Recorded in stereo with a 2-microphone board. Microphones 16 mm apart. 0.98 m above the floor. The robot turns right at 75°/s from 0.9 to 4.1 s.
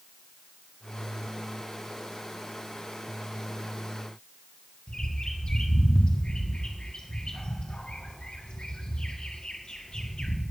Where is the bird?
70° left (ahead or behind), 1.7 m.